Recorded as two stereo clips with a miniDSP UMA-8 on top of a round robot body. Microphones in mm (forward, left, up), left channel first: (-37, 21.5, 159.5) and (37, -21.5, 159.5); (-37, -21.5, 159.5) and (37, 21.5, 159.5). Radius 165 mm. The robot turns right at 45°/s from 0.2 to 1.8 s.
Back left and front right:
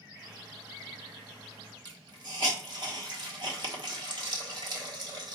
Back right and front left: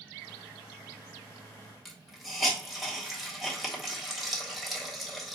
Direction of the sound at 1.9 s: 60° right.